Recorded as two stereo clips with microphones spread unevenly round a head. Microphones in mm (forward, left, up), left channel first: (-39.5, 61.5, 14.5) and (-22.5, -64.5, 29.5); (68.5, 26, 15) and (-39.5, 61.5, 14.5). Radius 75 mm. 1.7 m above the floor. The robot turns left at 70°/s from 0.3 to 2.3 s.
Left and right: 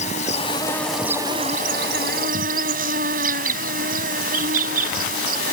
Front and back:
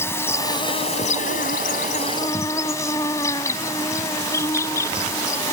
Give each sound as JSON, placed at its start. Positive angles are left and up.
{"t": 0.0, "sound": "an insect", "azimuth_deg": 50}